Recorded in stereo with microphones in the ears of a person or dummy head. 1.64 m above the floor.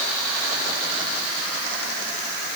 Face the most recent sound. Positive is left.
No sound to turn to.